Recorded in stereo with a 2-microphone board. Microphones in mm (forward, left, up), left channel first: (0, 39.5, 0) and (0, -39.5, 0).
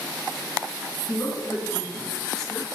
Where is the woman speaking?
45° left (ahead or behind), 2 m; by 2.7 s 5° right (ahead or behind), 1.5 m.